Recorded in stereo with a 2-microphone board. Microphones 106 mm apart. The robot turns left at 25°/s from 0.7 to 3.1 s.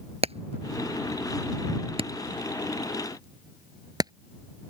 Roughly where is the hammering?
Right.